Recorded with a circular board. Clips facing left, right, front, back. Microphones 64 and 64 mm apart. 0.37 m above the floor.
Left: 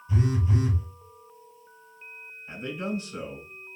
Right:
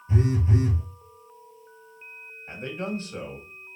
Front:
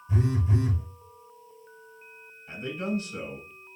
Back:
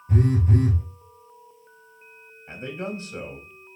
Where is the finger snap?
I don't hear a finger snap.